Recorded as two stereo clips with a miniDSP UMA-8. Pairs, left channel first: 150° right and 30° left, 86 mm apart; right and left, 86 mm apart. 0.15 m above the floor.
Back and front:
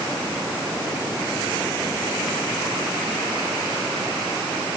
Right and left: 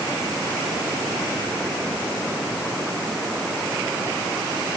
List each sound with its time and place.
Only background noise.